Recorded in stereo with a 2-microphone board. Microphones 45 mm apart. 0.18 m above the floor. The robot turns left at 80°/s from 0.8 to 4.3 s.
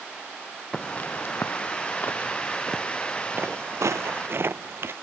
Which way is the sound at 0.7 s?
20° left (ahead or behind).